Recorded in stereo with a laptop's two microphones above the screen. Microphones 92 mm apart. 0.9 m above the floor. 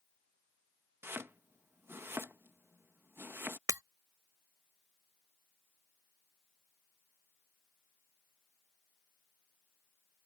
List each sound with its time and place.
1.0 s chopping: 25° right (ahead or behind)
3.7 s breaking glass: 40° right (ahead or behind)